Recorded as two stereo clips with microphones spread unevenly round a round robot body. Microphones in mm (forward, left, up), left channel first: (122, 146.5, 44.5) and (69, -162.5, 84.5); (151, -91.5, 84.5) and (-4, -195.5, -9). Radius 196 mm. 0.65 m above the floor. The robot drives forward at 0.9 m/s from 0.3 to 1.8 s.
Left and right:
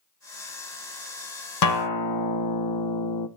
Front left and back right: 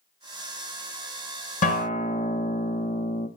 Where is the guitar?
60° left, 0.6 m; by 3.3 s 80° left, 0.5 m.